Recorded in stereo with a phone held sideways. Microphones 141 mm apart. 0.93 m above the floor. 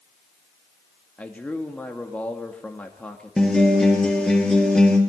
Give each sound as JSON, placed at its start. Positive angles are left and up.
{"t": 1.2, "sound": "a man speaking", "side_deg": 10, "distance_m": 1.9}
{"t": 3.4, "sound": "a guitar", "side_deg": 5, "distance_m": 3.0}